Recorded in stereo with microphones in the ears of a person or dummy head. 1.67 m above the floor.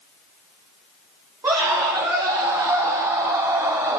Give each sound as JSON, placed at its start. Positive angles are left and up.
{"t": 1.4, "sound": "a scream", "side_deg": -10, "distance_m": 4.5}